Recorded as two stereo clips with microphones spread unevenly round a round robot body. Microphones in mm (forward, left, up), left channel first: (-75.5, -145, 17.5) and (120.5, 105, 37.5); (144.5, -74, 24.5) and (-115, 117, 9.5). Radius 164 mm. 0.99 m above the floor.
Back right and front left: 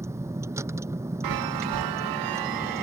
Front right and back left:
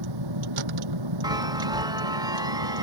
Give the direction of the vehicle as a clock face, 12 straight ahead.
8 o'clock.